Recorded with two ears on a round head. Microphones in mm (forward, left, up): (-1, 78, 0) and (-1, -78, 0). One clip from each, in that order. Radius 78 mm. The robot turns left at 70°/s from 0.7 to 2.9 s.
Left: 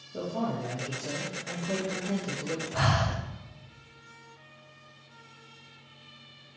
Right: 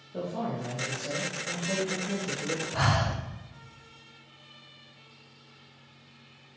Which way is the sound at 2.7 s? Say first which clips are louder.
Even; 5° right (ahead or behind).